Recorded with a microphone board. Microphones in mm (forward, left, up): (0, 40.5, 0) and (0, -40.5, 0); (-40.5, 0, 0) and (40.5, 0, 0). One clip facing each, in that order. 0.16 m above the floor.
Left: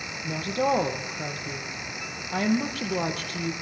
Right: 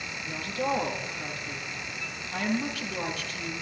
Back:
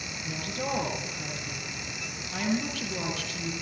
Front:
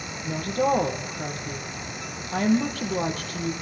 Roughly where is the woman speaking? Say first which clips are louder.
Left 5 dB, front 10 dB; ahead left.